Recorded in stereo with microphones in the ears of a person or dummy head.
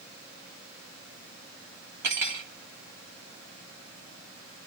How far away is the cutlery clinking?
About 1.1 m.